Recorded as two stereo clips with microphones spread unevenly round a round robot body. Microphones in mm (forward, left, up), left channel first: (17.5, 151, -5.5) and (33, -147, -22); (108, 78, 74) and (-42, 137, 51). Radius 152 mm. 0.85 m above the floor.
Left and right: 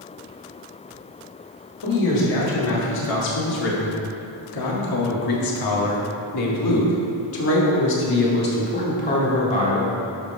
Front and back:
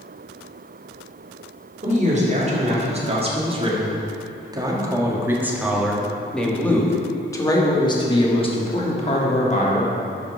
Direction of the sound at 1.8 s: 120° left.